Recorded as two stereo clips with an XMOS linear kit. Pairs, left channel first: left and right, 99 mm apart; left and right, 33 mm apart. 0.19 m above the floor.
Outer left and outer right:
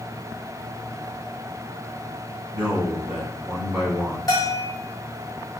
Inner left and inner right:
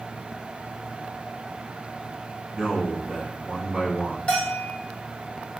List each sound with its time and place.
2.5 s a man speaking: 10° right (ahead or behind), 1.1 m
4.3 s a bell: 35° left (ahead or behind), 1.3 m